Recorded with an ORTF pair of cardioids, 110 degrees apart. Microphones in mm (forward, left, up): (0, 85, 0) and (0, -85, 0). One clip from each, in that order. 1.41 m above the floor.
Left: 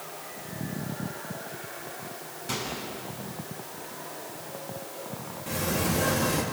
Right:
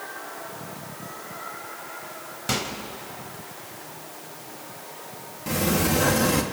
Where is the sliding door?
40° right, 3 m.